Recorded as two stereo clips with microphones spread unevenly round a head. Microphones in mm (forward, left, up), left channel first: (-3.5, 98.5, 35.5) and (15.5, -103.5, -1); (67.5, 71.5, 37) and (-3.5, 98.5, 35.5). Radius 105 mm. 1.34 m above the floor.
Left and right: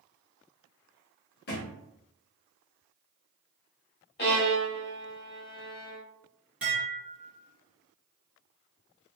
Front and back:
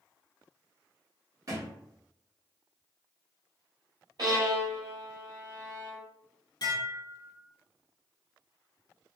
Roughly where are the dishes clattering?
Ahead.